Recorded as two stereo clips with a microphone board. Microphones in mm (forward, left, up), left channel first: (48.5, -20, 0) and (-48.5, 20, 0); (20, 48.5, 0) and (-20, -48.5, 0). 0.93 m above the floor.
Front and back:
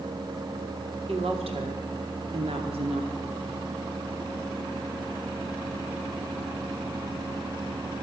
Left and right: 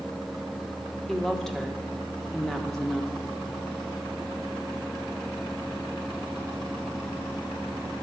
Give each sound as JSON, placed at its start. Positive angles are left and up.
{"t": 1.1, "sound": "a woman speaking", "azimuth_deg": 150, "distance_m": 2.0}